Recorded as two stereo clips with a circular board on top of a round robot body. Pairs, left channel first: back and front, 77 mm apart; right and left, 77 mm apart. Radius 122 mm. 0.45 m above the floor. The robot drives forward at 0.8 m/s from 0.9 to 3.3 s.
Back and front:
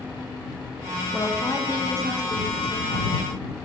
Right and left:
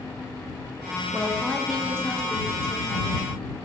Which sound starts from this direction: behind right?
A woman speaking, at 1.1 s.